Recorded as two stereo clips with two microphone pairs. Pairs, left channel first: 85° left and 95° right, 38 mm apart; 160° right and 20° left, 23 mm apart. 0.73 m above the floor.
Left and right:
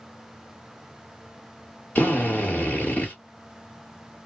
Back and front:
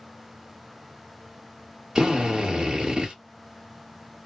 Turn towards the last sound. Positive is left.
turn(degrees=55)